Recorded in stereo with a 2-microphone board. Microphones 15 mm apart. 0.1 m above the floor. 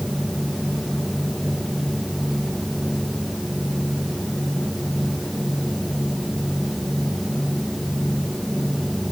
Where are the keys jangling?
No keys jangling in this recording.